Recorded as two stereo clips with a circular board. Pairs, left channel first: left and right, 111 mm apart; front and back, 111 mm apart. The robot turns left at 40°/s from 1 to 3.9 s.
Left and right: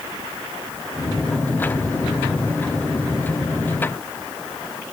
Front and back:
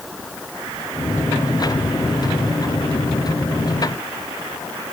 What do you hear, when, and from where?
Only background noise.